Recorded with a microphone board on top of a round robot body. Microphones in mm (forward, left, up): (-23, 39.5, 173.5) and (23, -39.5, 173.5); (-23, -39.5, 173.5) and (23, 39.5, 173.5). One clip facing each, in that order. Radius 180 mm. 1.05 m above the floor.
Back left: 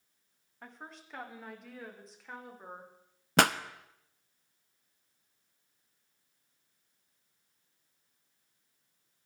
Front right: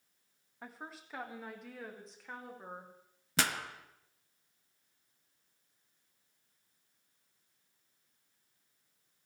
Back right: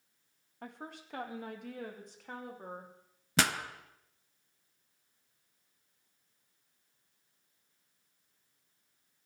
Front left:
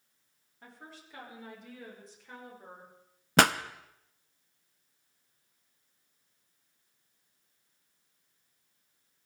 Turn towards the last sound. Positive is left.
turn(degrees=90)